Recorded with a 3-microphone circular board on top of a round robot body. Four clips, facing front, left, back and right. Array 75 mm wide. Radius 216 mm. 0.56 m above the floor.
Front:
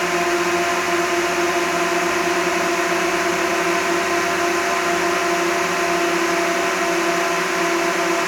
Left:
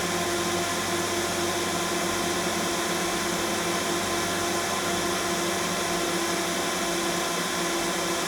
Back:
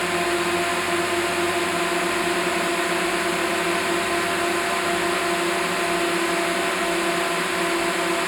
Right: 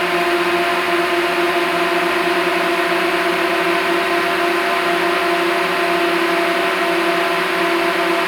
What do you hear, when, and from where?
0.0 s a drone: 70° right